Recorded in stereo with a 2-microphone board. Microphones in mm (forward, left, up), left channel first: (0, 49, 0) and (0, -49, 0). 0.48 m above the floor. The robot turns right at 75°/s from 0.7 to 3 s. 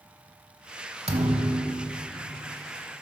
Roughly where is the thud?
Right.